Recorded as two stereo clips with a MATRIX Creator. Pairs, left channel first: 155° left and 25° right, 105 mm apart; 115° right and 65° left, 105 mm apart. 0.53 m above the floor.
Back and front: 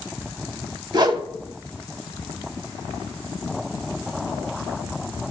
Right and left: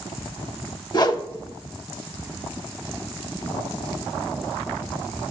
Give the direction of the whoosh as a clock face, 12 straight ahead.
2 o'clock.